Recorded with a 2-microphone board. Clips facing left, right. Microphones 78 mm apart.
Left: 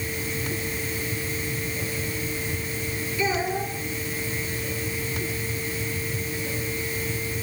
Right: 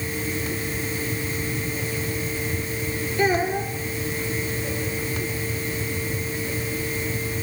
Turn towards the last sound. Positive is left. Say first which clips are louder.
# right 4 dB
turn(degrees=-55)  # may be behind; listen again after turning